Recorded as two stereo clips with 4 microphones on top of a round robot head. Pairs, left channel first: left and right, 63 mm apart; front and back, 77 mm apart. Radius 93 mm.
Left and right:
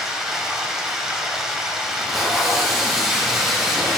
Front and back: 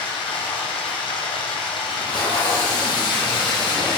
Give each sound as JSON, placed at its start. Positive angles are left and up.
{"t": 0.0, "sound": "running water", "azimuth_deg": -5, "distance_m": 1.8}
{"t": 1.9, "sound": "tape being pulled", "azimuth_deg": -5, "distance_m": 2.5}